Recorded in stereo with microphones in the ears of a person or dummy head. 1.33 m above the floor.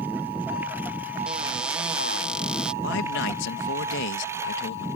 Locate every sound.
0.0 s a lawn mower: 15° right (ahead or behind); by 5.0 s 20° right (ahead or behind)
1.3 s a cupboard door: centre (ahead or behind)
2.8 s a man speaking: 60° left (ahead or behind)